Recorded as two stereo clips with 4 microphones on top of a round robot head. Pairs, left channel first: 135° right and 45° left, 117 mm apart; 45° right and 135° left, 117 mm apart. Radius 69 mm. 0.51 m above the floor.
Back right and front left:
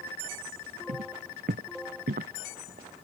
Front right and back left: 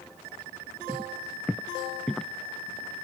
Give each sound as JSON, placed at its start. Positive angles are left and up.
{"t": 0.9, "sound": "footsteps", "azimuth_deg": 60}